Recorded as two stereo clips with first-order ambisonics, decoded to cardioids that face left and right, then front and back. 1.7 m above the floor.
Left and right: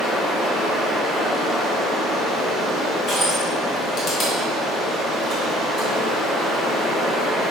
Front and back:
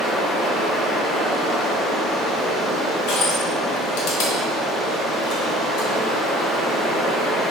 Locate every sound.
0.0 s running water: 110° left, 1.1 m
3.1 s crushing: 25° left, 1.1 m